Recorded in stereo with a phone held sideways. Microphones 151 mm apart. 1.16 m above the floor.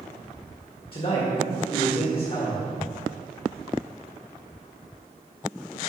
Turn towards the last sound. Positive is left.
turn(degrees=35)  # may be behind; listen again after turning